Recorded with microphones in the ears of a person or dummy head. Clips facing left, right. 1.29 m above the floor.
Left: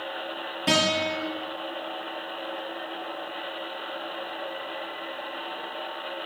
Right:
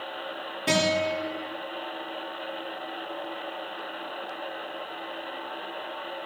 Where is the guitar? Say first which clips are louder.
Right 1 dB; 5° left (ahead or behind), 2.5 m.